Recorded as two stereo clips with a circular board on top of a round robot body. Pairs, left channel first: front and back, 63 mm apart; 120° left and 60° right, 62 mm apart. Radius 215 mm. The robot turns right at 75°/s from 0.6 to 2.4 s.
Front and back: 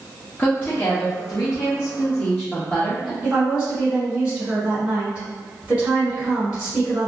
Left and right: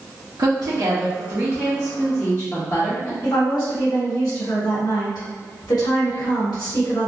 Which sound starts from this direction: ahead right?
A woman speaking, at 0.4 s.